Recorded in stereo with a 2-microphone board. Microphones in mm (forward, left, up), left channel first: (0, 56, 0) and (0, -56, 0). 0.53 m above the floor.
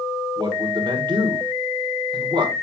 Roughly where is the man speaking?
Right.